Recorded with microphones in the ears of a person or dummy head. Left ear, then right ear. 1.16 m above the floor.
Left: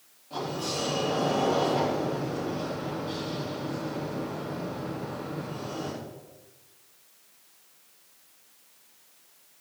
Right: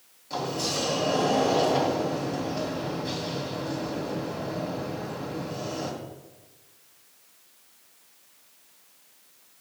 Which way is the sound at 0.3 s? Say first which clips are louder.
Right 3 dB; 60° right (ahead or behind).